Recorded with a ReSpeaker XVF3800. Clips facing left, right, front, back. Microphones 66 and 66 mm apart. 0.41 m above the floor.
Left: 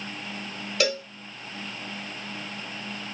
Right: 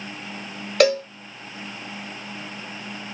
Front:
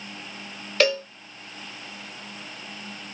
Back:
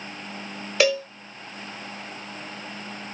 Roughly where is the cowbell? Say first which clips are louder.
Right 9 dB, back 1 dB; right.